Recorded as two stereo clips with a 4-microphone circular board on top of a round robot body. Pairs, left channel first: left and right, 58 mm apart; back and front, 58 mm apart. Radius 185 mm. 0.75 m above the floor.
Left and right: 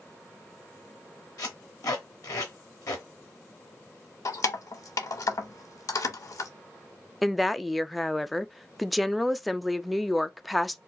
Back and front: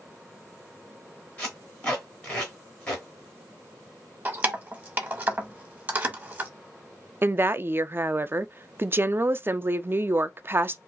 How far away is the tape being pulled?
About 0.6 m.